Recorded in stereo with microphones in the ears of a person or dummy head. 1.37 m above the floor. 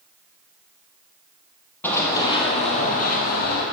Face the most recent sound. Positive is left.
turn(degrees=55)  # may be behind; listen again after turning